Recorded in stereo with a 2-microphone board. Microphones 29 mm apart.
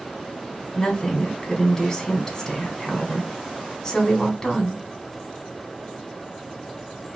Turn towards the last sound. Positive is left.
turn(degrees=15)  # may be behind; listen again after turning